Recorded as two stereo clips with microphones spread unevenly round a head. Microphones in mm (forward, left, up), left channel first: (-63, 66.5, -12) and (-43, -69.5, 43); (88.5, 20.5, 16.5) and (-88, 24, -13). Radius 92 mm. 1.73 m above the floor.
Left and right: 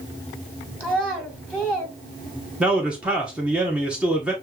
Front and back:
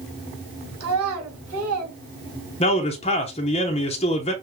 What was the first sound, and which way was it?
A child speaking, 175° right.